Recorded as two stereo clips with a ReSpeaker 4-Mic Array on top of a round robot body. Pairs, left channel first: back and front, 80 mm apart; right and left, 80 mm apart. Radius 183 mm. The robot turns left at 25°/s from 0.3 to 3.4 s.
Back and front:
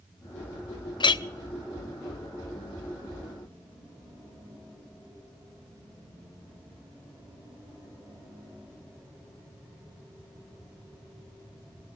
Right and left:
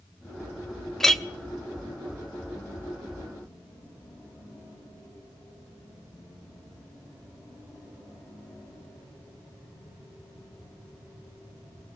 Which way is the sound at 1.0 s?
175° right.